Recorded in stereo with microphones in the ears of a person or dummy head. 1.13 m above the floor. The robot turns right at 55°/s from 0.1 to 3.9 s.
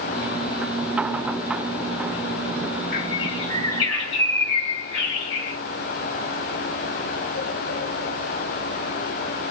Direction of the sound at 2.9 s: 55° left.